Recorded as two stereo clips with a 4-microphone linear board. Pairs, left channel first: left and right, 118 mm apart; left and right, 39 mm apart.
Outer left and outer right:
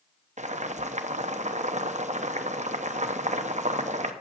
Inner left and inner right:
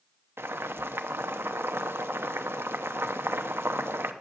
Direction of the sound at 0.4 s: 80° right.